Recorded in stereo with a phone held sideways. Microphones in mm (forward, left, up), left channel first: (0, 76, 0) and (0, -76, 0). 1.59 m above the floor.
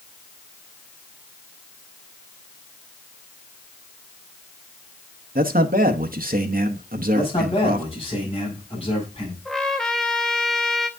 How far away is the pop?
No pop in this recording.